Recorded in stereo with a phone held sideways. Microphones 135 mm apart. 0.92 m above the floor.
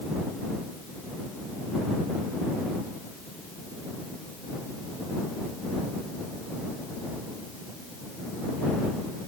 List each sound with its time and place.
Only background noise.